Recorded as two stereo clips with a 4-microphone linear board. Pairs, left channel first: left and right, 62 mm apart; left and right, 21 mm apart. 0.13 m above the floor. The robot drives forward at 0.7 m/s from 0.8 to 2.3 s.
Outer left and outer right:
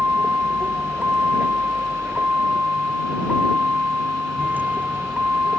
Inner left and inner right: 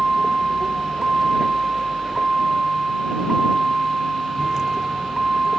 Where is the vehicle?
25° right (ahead or behind).